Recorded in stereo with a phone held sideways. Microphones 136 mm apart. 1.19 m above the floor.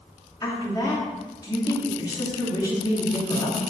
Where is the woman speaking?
25° left (ahead or behind), 2 m.